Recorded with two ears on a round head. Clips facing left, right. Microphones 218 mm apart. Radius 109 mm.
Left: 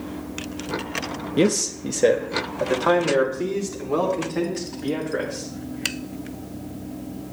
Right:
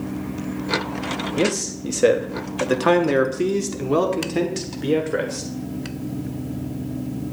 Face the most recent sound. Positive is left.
turn(degrees=-55)  # may be behind; listen again after turning